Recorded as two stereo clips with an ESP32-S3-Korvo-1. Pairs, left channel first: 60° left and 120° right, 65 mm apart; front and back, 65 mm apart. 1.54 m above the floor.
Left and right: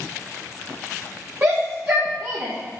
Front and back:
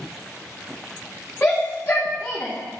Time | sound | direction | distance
1.4 | a shout | 65° right | 1.2 m